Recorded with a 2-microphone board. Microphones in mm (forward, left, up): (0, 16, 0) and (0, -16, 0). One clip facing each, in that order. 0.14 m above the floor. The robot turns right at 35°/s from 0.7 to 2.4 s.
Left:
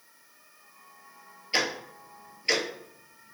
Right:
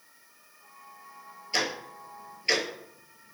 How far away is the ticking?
About 0.7 m.